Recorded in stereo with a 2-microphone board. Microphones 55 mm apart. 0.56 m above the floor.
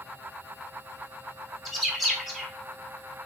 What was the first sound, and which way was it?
A bird, centre (ahead or behind).